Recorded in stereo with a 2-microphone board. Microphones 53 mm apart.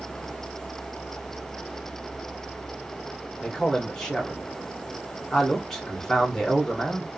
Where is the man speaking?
10° left (ahead or behind), 2 m.